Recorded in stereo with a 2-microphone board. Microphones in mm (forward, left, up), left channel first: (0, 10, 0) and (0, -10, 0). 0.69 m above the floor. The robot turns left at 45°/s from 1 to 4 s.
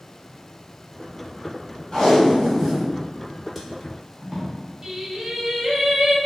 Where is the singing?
45° right (ahead or behind), 1.4 m.